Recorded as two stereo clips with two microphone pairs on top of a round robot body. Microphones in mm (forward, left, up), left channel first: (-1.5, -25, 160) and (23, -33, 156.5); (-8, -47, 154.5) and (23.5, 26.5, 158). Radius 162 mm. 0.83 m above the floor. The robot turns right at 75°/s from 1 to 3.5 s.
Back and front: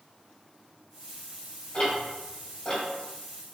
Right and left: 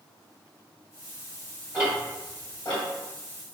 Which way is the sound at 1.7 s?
140° left.